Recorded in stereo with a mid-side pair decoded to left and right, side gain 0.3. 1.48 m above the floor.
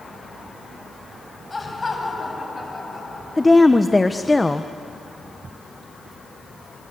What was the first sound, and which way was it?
Laughter, 35° left.